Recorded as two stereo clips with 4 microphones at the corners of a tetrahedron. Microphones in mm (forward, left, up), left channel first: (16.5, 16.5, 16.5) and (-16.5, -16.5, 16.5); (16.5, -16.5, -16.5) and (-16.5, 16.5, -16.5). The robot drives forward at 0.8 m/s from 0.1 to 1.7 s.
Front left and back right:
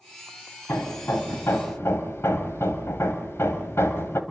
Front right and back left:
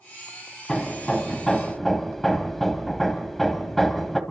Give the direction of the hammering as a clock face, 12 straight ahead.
11 o'clock.